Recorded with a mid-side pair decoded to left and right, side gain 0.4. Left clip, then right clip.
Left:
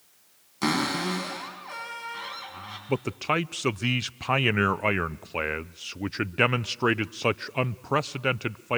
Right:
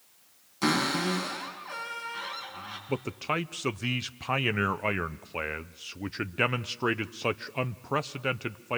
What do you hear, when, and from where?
0.6 s a cupboard door: 15° left, 6 m
2.9 s a man speaking: 30° left, 0.6 m